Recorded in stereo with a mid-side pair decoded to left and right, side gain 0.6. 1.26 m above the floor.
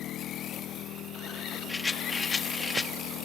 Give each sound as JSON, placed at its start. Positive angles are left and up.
{"t": 0.0, "sound": "an engine running", "azimuth_deg": 60}
{"t": 1.7, "sound": "a rattle", "azimuth_deg": 25}